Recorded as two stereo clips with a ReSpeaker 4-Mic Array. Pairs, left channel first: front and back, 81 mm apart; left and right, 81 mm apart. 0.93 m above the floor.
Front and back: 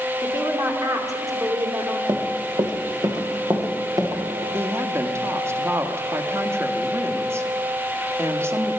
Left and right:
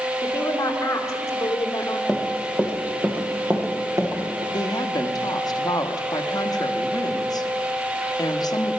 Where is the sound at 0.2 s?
135° left, 2.5 m.